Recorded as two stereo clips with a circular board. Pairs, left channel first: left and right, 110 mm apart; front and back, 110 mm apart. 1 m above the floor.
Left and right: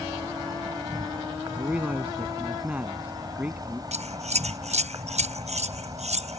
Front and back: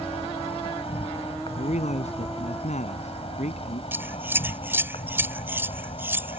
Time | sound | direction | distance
0.0 | an insect | 35° right | ?
1.6 | a man speaking | 10° right | ?
3.9 | scissors | 110° right | ?